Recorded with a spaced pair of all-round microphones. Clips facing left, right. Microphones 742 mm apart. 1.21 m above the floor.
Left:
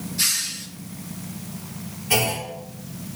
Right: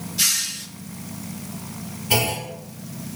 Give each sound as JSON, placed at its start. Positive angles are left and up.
{"t": 0.2, "sound": "a hiss", "side_deg": -65, "distance_m": 1.1}
{"t": 2.1, "sound": "a clunk", "side_deg": -70, "distance_m": 3.0}